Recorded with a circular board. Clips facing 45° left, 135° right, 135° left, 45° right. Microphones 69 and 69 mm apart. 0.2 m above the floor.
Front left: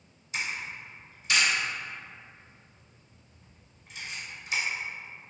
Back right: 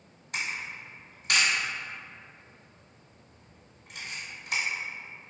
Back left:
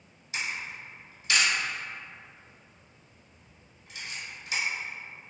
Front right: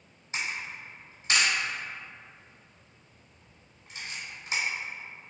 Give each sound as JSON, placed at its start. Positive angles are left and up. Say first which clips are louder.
{"t": 0.3, "sound": "a camera shutter", "louder": "even, even", "azimuth_deg": -100, "distance_m": 1.2}